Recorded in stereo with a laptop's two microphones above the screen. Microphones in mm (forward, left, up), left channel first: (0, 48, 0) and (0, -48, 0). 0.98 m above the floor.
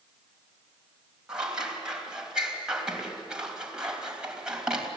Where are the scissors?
10° right (ahead or behind), 3.5 m.